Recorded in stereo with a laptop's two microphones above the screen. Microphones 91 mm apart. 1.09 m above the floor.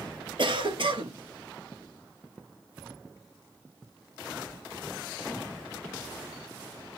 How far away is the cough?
About 1.4 m.